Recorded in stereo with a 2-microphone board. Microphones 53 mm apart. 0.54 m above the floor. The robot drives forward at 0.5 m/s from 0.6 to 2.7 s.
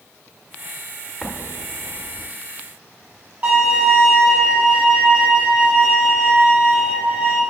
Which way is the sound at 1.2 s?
5° left (ahead or behind).